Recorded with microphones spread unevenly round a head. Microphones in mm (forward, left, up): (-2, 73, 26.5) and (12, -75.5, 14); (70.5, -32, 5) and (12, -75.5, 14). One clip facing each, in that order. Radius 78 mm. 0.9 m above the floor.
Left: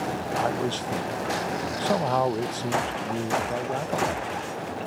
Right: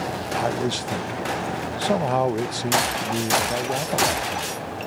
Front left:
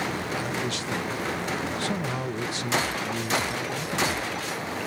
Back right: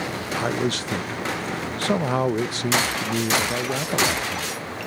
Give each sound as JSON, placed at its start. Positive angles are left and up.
{"t": 0.4, "sound": "a man speaking", "azimuth_deg": -150}